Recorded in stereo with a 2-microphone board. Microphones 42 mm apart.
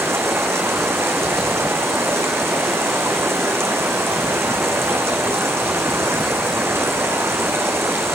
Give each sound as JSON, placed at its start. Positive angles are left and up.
{"t": 0.0, "sound": "running water", "side_deg": -85, "distance_m": 1.3}